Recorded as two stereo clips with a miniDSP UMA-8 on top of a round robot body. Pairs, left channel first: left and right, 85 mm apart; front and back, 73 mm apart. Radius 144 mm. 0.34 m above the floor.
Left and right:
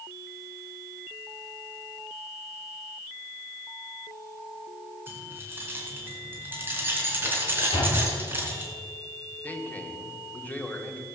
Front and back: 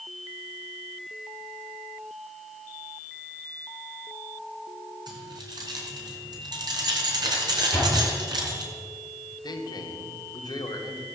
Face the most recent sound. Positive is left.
turn(degrees=20)